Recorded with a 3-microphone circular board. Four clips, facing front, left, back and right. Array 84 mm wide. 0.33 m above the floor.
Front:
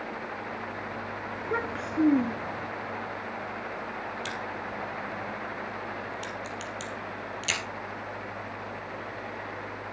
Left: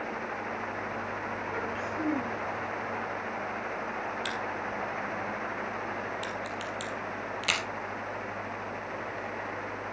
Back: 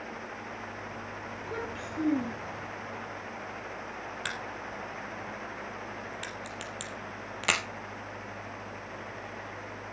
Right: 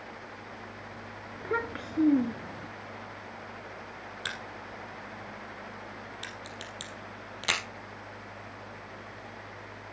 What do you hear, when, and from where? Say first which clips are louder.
1.4 s a child speaking: even, front 7 dB; 55° right, 3 m; by 2.7 s 45° right, 2.5 m
4.2 s a crack: left 7 dB, front 3 dB; 165° right, 3 m